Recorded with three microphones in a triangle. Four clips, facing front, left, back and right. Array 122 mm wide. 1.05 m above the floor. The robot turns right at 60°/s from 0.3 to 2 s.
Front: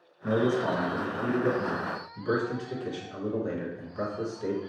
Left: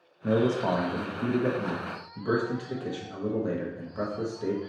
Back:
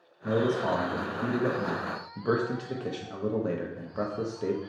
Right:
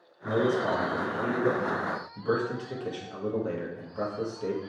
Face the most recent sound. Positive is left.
turn(degrees=175)